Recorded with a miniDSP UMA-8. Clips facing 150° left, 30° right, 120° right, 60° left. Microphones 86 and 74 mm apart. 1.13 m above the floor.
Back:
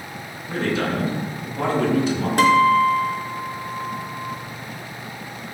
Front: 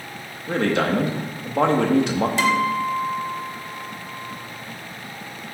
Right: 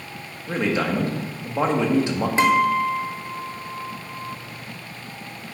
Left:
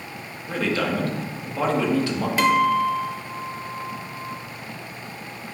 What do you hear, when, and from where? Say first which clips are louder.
0.5 s a man speaking: front 3 dB, right 1 dB; 55° right, 1.6 m
2.4 s a guitar: back 10 dB, even; straight behind, 1.2 m